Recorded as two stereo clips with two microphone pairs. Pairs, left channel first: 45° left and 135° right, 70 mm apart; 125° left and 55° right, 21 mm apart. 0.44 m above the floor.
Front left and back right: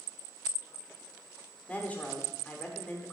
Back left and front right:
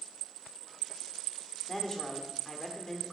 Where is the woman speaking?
85° left, 0.9 m.